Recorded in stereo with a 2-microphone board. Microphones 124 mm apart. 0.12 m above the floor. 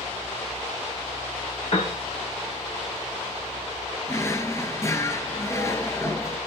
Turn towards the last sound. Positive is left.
turn(degrees=20)  # may be behind; listen again after turning